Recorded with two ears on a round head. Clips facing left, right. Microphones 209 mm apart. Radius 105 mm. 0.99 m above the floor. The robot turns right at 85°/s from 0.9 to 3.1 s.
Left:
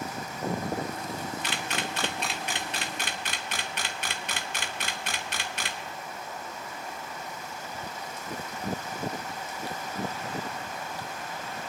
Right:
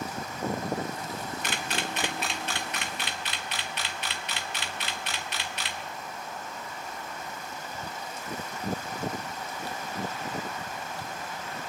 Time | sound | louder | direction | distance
1.4 | a camera shutter | even | 40° right (ahead or behind) | 0.9 m